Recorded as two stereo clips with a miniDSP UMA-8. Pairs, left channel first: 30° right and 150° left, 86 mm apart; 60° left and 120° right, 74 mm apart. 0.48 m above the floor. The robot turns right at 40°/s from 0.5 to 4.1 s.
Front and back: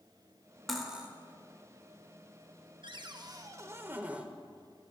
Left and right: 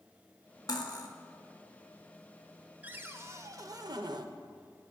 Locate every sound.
0.7 s cutlery clinking: 60° left, 0.9 m; by 1.1 s 75° left, 0.9 m
2.8 s a cupboard door: 175° left, 0.5 m; by 4.3 s 135° right, 0.5 m